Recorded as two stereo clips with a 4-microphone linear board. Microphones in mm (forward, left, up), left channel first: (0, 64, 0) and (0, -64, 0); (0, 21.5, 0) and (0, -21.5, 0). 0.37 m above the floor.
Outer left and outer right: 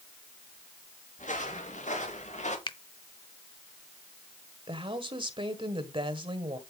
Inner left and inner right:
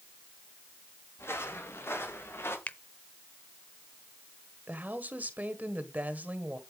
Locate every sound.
1.2 s footsteps: 75° left (ahead or behind), 5.5 m; by 2.6 s 65° left (ahead or behind), 5.5 m
2.7 s a finger snap: 40° left (ahead or behind), 0.8 m
4.7 s a woman speaking: 40° right (ahead or behind), 1.6 m